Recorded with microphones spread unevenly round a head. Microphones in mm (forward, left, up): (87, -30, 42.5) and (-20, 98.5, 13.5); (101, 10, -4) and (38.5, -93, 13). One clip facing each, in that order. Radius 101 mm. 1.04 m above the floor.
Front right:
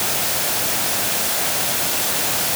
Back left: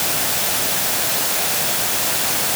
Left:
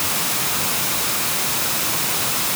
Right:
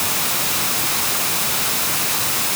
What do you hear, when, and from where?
Only background noise.